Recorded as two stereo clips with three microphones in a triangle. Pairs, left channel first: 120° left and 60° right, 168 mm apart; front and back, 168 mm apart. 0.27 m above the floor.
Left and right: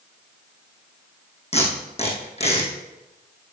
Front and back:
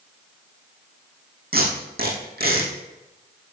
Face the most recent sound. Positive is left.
turn(degrees=165)